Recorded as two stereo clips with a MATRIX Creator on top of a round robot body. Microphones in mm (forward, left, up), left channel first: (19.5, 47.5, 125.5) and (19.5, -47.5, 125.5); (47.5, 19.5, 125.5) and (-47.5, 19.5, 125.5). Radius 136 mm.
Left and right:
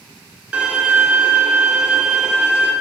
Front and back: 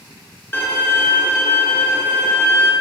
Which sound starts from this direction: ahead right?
A violin, at 0.5 s.